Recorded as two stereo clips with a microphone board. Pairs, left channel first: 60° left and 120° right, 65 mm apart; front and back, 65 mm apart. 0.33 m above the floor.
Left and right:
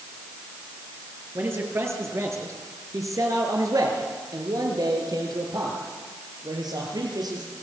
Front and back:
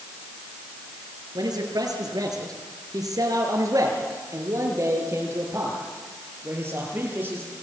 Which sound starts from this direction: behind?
A man speaking, at 1.4 s.